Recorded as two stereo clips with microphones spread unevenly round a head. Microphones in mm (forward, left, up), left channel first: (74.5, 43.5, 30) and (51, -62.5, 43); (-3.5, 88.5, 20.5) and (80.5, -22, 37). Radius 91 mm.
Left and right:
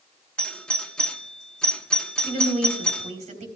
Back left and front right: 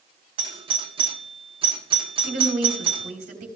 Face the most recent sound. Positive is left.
turn(degrees=-95)